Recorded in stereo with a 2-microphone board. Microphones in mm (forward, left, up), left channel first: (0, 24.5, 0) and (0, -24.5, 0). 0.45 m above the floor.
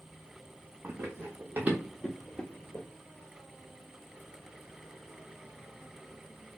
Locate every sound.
0.8 s running footsteps: 45° right (ahead or behind), 1.4 m; by 2.9 s 50° left (ahead or behind), 0.6 m